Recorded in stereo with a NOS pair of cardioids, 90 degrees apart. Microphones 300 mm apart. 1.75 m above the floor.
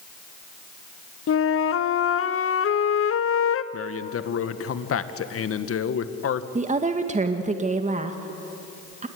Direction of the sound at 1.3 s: 45° left.